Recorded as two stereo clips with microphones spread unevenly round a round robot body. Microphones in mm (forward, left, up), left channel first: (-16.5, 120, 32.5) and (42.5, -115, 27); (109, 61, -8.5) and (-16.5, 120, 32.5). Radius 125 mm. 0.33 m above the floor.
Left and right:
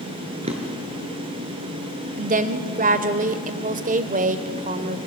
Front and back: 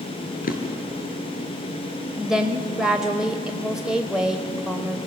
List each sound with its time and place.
0.4 s a drawer: 10° right, 3 m
2.2 s a woman speaking: 100° right, 1.0 m